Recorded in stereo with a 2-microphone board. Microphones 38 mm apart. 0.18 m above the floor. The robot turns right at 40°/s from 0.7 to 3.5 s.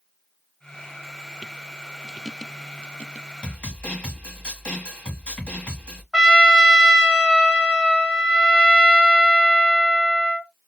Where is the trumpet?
15° right (ahead or behind), 1.6 m.